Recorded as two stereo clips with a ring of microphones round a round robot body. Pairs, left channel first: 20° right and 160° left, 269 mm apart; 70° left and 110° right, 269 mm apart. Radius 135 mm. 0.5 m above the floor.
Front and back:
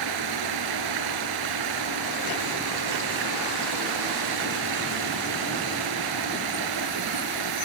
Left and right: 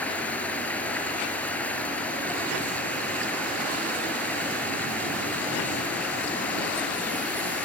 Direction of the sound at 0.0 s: 155° left.